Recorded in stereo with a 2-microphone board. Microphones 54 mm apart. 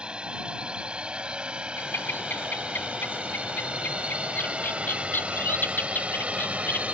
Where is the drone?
20° right (ahead or behind); by 6.9 s 25° right (ahead or behind).